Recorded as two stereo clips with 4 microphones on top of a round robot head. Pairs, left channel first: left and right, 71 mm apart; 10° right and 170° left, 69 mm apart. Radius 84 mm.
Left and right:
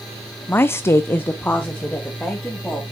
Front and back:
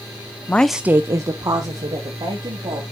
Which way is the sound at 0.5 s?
40° left.